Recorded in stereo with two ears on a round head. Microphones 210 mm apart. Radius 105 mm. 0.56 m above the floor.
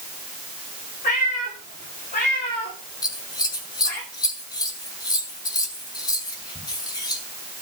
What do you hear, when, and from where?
1.0 s a cat meowing: 35° left (ahead or behind), 10 m; by 4.0 s 45° left (ahead or behind), 9.5 m
3.0 s scissors: 15° left (ahead or behind), 3 m